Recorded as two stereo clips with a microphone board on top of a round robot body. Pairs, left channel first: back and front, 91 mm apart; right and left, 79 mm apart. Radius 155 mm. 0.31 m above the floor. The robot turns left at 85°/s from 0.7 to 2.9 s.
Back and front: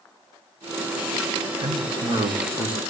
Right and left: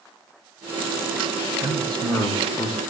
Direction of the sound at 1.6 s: 20° left.